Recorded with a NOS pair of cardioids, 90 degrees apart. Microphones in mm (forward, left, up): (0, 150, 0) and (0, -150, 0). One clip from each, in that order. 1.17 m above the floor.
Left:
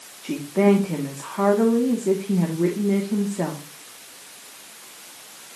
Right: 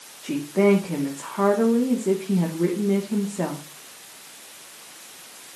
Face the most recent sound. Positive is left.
turn(degrees=0)